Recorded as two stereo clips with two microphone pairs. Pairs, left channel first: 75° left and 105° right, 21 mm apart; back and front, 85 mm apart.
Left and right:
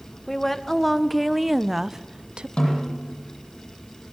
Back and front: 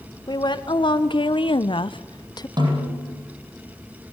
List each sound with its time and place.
0.3 s a woman speaking: 150° left, 2.0 m; by 2.5 s 140° right, 0.8 m
2.6 s a snare drum: 30° left, 10 m